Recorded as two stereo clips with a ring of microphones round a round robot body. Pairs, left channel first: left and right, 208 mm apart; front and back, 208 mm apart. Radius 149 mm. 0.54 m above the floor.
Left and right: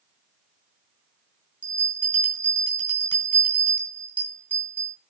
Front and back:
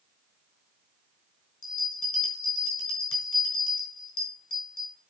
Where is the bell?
5° left, 3.5 m.